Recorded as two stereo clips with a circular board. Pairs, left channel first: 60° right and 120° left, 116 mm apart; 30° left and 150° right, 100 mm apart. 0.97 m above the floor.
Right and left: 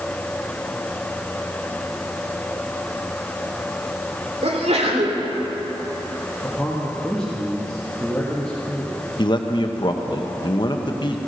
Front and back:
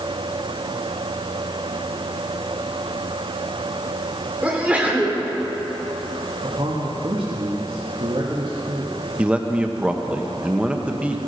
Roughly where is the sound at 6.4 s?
Behind right.